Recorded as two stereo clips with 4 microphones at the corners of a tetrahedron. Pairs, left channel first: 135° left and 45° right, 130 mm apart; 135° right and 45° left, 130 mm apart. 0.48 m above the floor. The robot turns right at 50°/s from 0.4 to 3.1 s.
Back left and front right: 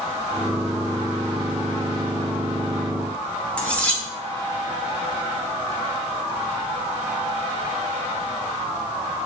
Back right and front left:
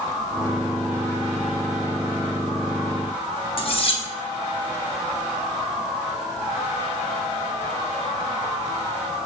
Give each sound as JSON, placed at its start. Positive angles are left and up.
{"t": 3.6, "sound": "cutlery clinking", "azimuth_deg": -150, "distance_m": 0.6}